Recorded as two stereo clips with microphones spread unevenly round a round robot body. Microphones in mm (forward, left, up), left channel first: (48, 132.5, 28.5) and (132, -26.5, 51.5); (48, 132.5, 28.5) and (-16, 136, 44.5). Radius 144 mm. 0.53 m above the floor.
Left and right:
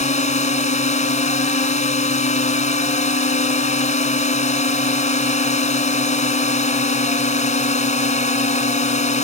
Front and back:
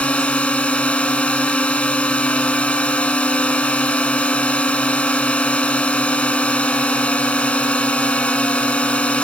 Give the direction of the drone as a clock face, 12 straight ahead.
10 o'clock.